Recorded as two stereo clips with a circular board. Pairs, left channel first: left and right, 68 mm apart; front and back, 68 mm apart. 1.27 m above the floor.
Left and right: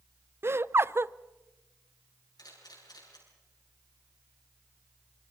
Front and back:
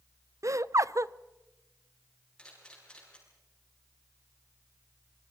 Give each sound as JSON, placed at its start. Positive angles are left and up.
{"t": 0.4, "sound": "laughter", "azimuth_deg": -145, "distance_m": 0.6}
{"t": 2.4, "sound": "a camera shutter", "azimuth_deg": 75, "distance_m": 8.0}